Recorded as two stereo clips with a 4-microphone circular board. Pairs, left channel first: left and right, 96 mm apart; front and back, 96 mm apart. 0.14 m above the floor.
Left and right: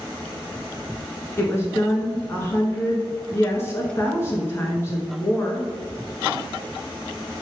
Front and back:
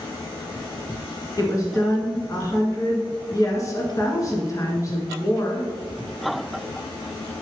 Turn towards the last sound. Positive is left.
turn(degrees=40)